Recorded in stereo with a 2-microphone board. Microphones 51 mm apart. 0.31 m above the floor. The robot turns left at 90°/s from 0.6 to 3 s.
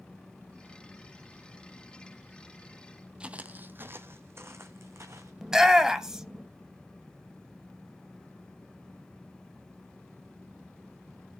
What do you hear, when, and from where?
3.2 s footsteps: 20° right (ahead or behind), 0.5 m; by 5.3 s 65° right (ahead or behind), 1.6 m
5.4 s a shout: 10° right (ahead or behind), 1.0 m